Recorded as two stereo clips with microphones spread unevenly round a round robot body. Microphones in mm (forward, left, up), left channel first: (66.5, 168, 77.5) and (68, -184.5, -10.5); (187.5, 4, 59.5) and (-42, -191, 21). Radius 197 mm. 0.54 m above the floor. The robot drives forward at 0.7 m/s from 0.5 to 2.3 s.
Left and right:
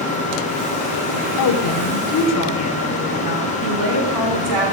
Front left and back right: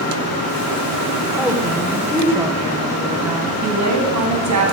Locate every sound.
1.4 s a woman speaking: 125° left, 1.9 m; by 3.5 s 140° left, 2.5 m
3.6 s a woman speaking: 120° right, 4.5 m